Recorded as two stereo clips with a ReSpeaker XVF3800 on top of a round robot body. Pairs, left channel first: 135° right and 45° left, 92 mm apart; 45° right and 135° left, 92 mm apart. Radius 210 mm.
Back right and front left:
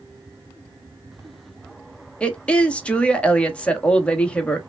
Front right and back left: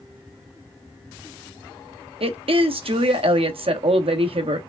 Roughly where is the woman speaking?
Behind left.